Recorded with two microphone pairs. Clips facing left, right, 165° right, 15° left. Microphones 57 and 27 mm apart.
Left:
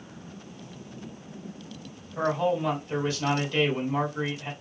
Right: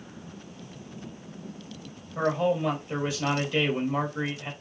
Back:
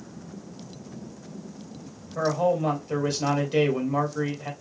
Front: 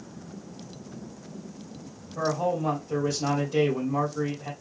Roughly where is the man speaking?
Behind.